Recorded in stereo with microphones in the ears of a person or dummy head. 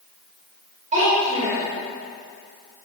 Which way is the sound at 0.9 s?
40° right (ahead or behind).